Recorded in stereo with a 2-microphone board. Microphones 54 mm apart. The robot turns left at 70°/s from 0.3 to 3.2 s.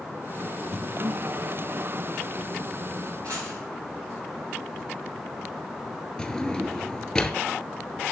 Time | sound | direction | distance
0.7 | breathing | 5° right (ahead or behind) | 3.5 m
3.2 | a dropped coin | 85° right | 6 m
6.2 | a drawer | 15° left (ahead or behind) | 0.6 m